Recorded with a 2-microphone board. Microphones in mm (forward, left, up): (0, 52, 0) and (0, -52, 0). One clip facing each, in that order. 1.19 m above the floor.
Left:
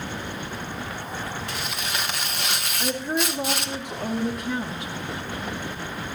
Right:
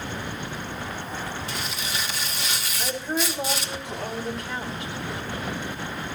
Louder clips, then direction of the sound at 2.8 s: Left 2 dB; 20° left (ahead or behind).